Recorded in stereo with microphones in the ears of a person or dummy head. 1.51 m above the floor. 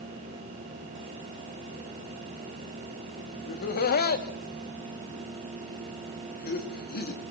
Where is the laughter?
45° left (ahead or behind), 2.5 m.